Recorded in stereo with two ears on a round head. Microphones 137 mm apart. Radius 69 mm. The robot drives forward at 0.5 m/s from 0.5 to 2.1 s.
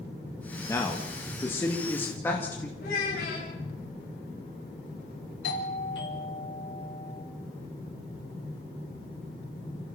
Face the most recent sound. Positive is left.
turn(degrees=85)